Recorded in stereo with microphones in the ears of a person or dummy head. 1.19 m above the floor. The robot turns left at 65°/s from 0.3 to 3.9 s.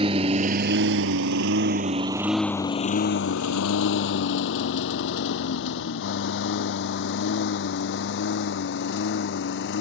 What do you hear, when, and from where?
0.0 s a lawn mower: 30° right (ahead or behind); by 9.8 s 70° left (ahead or behind)